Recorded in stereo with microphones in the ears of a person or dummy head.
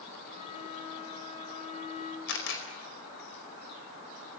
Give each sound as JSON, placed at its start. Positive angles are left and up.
{"t": 0.3, "sound": "a flute", "side_deg": 40, "distance_m": 2.5}
{"t": 2.3, "sound": "a camera shutter", "side_deg": 75, "distance_m": 4.5}